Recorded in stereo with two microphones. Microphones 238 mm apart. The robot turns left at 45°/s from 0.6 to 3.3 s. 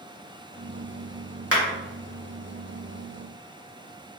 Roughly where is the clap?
Right.